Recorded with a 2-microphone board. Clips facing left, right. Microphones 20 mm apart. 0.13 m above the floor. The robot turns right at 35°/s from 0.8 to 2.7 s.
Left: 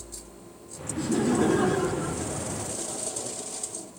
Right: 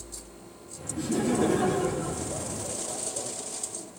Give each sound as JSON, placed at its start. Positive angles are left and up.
{"t": 1.0, "sound": "laughter", "azimuth_deg": 25, "distance_m": 2.0}